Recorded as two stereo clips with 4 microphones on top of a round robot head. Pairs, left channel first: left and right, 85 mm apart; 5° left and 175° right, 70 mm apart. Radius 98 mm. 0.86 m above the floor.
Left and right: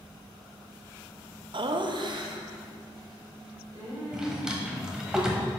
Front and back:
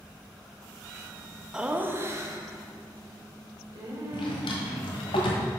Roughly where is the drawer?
Ahead.